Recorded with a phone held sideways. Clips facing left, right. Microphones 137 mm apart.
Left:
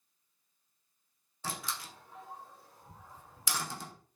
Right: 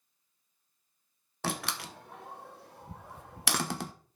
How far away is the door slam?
About 1.0 m.